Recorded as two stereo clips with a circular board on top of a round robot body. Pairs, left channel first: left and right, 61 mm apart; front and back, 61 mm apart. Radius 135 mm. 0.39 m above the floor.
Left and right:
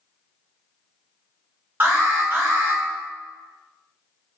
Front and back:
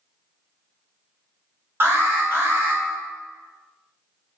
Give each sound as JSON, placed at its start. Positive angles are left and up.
{"t": 1.8, "sound": "an alarm", "azimuth_deg": -140, "distance_m": 1.2}